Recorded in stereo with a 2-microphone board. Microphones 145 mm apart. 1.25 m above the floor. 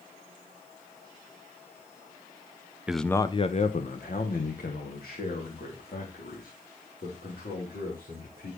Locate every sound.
2.9 s a man speaking: 5° right (ahead or behind), 0.6 m; by 8.5 s 85° left, 5 m